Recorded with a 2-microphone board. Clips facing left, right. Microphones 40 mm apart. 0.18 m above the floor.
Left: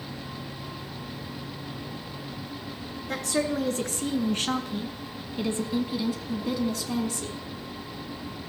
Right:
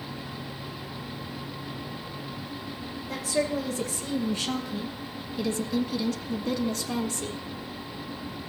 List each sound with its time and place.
3.1 s a woman speaking: 60° left (ahead or behind), 2 m; by 7.4 s 10° right (ahead or behind), 1.4 m